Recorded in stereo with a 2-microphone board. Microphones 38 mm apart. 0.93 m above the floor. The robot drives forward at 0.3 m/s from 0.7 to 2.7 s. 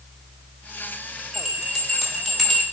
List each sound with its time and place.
1.3 s a bell: centre (ahead or behind), 2 m; by 2.6 s 5° right (ahead or behind), 1.7 m